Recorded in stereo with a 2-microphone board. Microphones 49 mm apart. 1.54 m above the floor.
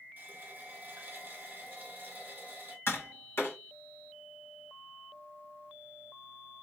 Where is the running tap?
40° right (ahead or behind), 1.3 m.